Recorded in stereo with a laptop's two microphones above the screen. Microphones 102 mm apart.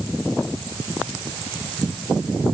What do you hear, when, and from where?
Only background noise.